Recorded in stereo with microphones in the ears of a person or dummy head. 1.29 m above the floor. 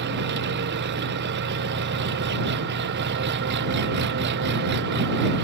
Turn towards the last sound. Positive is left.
turn(degrees=-55)  # may be behind; listen again after turning